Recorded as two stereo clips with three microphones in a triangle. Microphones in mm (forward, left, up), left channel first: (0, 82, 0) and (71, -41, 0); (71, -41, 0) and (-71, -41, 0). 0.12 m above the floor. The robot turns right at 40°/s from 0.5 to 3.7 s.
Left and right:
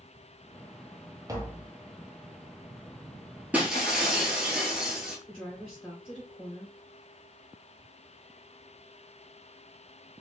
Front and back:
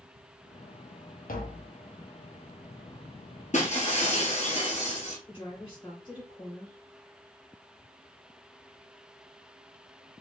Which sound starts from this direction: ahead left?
A woman speaking, at 5.3 s.